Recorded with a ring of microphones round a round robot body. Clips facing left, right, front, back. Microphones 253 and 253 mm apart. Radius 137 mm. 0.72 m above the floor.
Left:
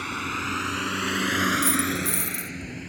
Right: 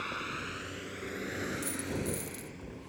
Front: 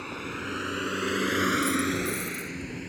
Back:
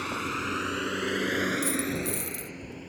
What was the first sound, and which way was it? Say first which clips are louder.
A vehicle: left 8 dB, back 2 dB; 110° left.